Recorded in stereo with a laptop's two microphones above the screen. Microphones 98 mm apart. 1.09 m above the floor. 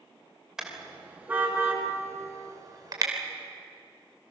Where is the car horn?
5° right (ahead or behind), 2.5 m; by 3.1 s 45° right (ahead or behind), 2.5 m.